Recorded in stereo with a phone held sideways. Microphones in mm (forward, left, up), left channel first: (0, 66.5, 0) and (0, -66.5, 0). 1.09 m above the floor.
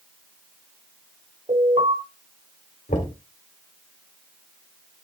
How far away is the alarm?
About 5.5 m.